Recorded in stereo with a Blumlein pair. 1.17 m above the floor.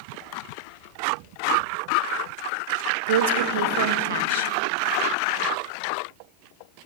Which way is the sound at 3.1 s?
55° right.